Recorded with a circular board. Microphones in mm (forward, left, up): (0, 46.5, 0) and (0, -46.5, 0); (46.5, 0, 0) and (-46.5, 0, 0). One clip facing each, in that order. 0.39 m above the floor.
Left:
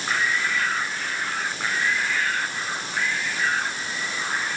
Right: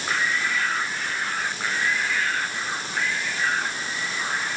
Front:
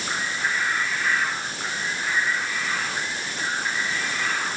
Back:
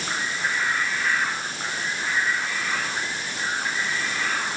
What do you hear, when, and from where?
Only background noise.